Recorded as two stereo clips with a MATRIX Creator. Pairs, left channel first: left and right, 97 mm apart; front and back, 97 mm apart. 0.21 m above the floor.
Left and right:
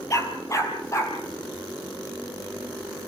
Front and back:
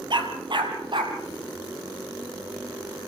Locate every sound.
0.1 s a dog barking: 145° left, 2 m